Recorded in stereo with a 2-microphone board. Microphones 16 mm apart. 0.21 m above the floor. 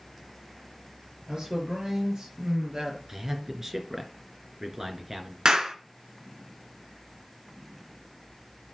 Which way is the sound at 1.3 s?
50° right (ahead or behind).